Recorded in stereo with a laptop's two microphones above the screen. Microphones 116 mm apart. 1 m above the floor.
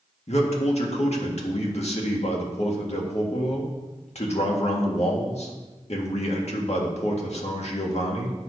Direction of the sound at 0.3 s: 65° left (ahead or behind).